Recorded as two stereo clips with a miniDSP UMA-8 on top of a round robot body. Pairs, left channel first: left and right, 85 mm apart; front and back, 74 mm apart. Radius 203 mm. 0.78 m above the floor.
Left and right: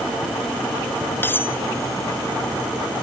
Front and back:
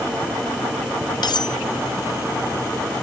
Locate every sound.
1.2 s cutlery clinking: 25° left